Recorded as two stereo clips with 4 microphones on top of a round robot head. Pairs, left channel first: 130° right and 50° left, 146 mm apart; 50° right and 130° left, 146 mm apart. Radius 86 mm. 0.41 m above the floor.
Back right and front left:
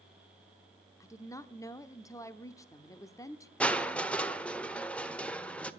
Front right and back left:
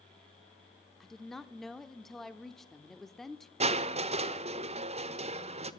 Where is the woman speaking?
135° right, 0.9 m.